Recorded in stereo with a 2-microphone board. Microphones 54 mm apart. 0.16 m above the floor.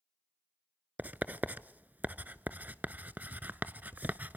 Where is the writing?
35° right (ahead or behind), 0.5 m.